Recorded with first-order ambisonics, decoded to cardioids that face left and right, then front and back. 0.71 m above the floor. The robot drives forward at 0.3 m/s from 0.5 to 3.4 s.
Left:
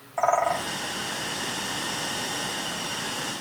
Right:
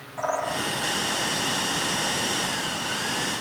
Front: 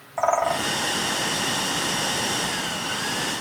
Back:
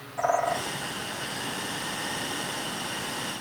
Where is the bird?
35° left, 1.2 m; by 0.7 s 40° left, 1.2 m.